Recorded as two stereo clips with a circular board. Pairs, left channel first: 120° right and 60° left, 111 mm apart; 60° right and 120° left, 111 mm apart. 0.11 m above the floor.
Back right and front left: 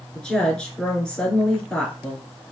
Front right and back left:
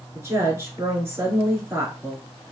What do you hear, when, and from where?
0.1 s a woman speaking: 165° left, 1.8 m